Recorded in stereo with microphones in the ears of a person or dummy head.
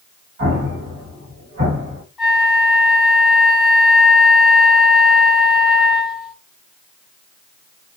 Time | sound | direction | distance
0.4 | an explosion | 50° right (ahead or behind) | 1.6 m
2.2 | a flute | 5° right (ahead or behind) | 1.1 m